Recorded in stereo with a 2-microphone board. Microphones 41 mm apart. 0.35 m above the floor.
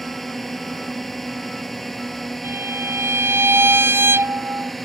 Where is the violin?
75° right (ahead or behind).